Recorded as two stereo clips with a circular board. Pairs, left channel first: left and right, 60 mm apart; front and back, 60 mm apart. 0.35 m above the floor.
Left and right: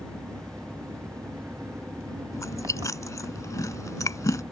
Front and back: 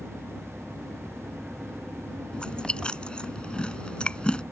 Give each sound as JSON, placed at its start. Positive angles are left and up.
{"t": 0.0, "sound": "an engine running", "azimuth_deg": -90}
{"t": 2.3, "sound": "chewing", "azimuth_deg": 70}